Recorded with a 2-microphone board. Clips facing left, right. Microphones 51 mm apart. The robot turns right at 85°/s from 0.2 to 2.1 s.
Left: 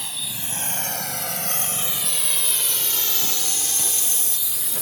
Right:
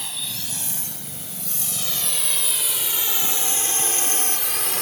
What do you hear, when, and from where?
0.0 s a drone: centre (ahead or behind); by 4.8 s 70° right (ahead or behind)